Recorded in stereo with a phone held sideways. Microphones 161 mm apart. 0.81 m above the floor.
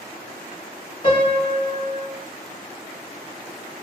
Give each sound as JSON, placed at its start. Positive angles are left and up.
{"t": 1.0, "sound": "a piano", "side_deg": 30, "distance_m": 0.9}